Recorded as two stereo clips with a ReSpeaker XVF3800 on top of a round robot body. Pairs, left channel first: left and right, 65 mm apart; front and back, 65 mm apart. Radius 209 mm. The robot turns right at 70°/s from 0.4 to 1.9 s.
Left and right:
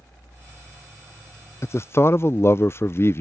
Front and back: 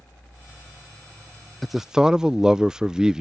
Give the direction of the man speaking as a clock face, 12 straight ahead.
9 o'clock.